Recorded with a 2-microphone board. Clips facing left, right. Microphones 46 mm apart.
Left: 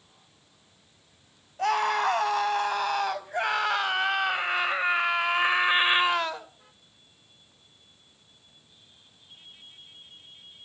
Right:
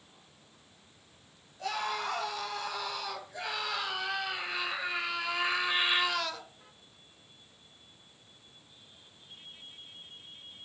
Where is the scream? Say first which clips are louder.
Left 10 dB; 60° left (ahead or behind), 4 m; by 6.5 s 30° left (ahead or behind), 1.8 m.